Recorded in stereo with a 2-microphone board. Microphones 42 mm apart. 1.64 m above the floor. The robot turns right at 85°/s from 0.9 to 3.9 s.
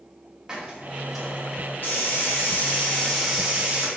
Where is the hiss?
20° right, 0.6 m; by 3.9 s 125° right, 0.6 m.